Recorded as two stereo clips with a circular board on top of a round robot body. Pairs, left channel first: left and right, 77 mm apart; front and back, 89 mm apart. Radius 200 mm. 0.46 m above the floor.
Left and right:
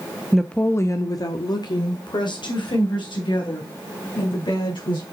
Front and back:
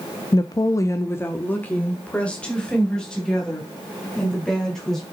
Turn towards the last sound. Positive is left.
turn(degrees=85)